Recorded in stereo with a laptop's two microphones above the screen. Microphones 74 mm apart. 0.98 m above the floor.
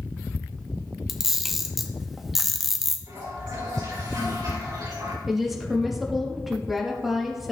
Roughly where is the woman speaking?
Centre.